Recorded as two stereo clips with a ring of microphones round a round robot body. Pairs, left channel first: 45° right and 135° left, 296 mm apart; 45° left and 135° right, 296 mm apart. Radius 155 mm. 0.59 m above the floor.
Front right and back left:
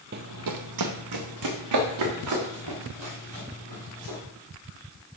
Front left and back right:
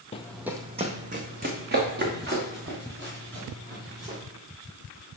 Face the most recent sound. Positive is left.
turn(degrees=170)